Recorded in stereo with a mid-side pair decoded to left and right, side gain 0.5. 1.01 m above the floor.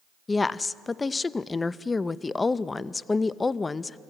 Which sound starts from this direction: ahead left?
A woman speaking, at 0.3 s.